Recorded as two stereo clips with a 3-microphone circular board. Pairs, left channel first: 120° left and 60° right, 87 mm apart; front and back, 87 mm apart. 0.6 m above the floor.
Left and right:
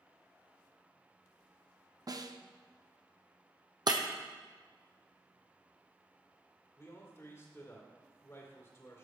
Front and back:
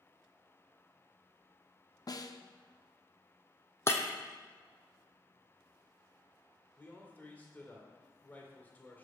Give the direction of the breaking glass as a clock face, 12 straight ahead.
2 o'clock.